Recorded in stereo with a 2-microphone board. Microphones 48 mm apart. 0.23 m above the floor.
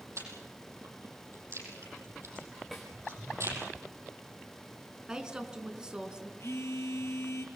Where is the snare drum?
Centre (ahead or behind), 5 m.